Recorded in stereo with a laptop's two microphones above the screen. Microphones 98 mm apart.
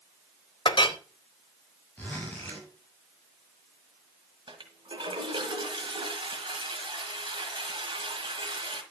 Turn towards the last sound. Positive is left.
turn(degrees=-55)  # may be behind; listen again after turning